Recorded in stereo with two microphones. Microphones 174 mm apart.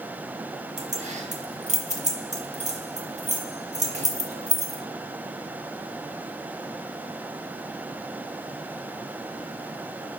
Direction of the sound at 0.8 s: 40° right (ahead or behind).